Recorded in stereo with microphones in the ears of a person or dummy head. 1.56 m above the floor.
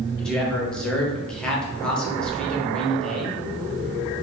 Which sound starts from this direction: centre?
A man speaking, at 0.2 s.